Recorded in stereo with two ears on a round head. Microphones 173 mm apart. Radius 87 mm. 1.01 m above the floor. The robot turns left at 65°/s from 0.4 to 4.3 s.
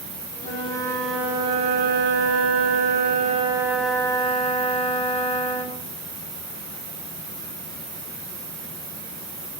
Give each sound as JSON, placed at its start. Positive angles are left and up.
{"t": 0.4, "sound": "a flute", "azimuth_deg": 45, "distance_m": 2.0}